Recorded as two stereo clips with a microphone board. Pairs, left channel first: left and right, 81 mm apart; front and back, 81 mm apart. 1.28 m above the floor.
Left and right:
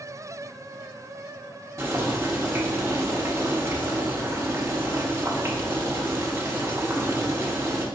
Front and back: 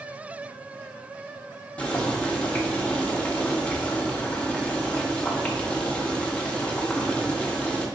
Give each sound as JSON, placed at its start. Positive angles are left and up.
{"t": 1.8, "sound": "boiling", "azimuth_deg": -65, "distance_m": 0.7}